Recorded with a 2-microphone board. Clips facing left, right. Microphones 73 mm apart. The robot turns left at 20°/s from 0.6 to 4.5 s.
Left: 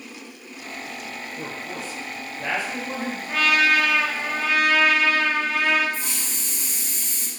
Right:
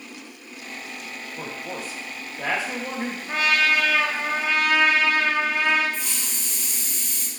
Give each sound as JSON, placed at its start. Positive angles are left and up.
{"t": 1.4, "sound": "a man speaking", "azimuth_deg": -60, "distance_m": 1.1}
{"t": 3.3, "sound": "a trumpet", "side_deg": -25, "distance_m": 0.9}
{"t": 5.9, "sound": "a hiss", "side_deg": 35, "distance_m": 0.6}